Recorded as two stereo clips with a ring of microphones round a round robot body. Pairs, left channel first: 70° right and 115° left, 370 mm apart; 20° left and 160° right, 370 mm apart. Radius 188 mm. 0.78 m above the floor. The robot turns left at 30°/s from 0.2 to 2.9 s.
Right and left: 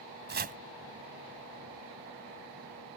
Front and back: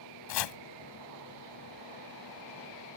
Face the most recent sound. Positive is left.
turn(degrees=-25)